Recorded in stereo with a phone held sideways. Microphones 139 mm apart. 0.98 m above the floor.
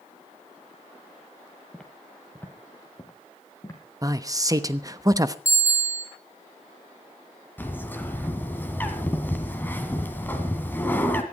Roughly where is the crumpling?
No crumpling in this recording.